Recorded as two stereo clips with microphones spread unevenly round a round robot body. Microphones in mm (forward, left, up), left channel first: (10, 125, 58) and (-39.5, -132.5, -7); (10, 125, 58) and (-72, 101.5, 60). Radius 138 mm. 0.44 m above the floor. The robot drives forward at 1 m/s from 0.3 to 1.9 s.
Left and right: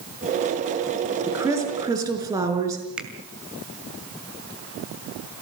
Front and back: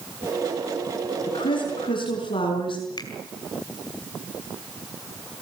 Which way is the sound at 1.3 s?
20° right.